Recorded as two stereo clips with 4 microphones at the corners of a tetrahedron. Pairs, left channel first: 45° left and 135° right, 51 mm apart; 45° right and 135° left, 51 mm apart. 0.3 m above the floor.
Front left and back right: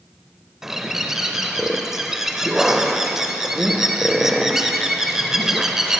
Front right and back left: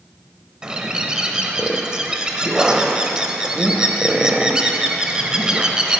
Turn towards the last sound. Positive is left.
turn(degrees=160)